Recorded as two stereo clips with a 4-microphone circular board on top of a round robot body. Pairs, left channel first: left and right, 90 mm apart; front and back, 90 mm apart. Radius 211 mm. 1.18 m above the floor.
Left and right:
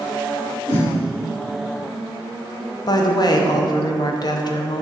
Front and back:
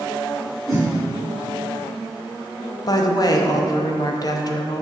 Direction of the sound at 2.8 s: 45° left.